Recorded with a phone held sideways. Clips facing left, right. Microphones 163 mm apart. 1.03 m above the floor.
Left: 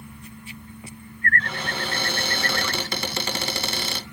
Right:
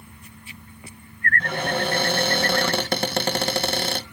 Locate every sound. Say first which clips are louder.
1.4 s a cupboard door: right 6 dB; 50° right (ahead or behind), 0.9 m